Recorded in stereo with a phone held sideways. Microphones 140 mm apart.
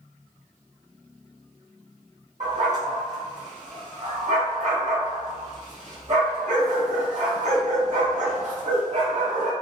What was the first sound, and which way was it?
A dog barking, 55° right (ahead or behind).